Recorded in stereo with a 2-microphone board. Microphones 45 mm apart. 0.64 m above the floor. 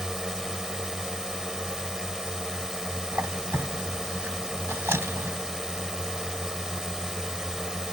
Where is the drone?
10° right (ahead or behind).